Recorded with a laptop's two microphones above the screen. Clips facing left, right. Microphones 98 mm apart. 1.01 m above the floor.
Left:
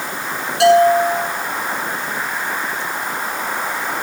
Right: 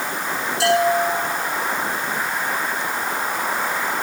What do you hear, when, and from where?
0.6 s a bell: 70° left (ahead or behind), 7.5 m